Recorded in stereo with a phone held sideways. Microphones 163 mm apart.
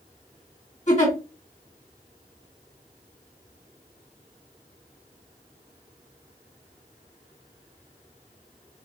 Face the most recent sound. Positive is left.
turn(degrees=45)  # may be behind; listen again after turning